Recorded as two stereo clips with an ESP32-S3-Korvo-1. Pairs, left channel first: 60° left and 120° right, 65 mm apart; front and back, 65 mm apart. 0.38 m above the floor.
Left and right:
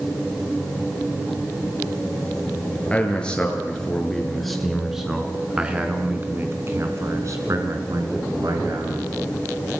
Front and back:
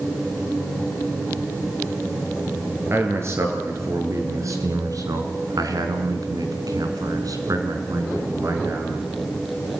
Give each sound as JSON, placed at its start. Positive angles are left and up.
{"t": 2.9, "sound": "a man speaking", "azimuth_deg": 130, "distance_m": 6.5}